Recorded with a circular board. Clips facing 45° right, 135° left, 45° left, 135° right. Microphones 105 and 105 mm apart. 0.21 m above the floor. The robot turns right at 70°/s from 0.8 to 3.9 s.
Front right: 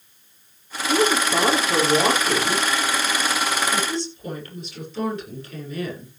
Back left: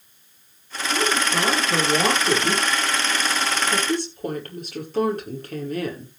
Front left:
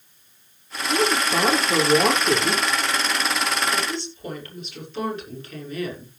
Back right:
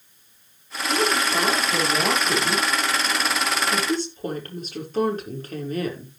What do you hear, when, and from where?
0.9 s a woman speaking: 35° right, 6 m; by 6.1 s 175° left, 6 m